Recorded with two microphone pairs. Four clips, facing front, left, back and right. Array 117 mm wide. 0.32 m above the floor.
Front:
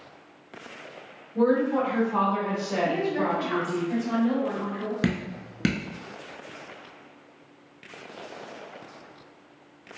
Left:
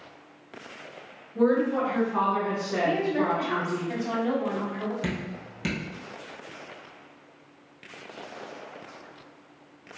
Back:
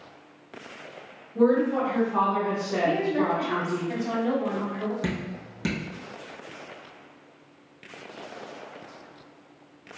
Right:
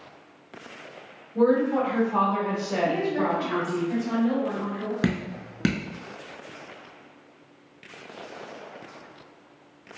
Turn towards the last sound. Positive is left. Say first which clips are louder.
# right 5 dB, front 3 dB
turn(degrees=-65)